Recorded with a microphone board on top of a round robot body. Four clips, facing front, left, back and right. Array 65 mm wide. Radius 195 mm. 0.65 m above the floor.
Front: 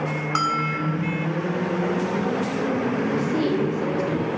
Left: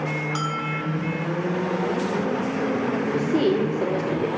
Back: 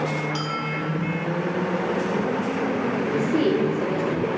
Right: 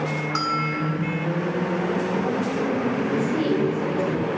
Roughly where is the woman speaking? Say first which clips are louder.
Left 3 dB, back 4 dB; behind left.